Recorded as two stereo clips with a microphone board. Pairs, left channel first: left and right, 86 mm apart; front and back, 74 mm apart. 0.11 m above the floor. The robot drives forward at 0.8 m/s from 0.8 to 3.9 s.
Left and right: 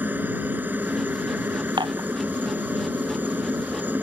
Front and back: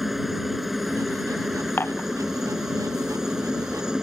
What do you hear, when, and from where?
0.0 s a helicopter: 95° right; by 4.0 s 110° right
1.8 s dishes clattering: 60° right